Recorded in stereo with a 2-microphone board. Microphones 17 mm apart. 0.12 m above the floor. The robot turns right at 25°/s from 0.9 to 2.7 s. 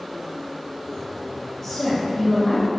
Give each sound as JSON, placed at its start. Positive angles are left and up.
{"t": 1.6, "sound": "a woman speaking", "side_deg": 20, "distance_m": 1.7}